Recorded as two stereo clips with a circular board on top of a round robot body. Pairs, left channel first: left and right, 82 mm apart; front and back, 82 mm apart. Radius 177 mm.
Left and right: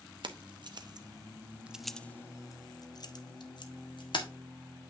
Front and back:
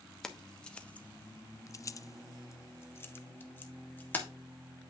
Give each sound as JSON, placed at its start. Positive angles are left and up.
{"t": 0.2, "sound": "keys jangling", "azimuth_deg": -85, "distance_m": 1.1}